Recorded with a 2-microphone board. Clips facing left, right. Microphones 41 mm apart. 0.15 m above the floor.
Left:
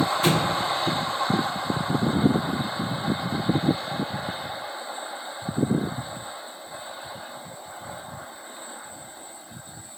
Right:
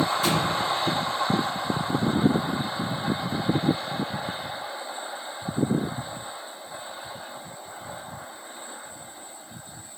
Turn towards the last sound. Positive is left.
turn(degrees=45)  # may be behind; listen again after turning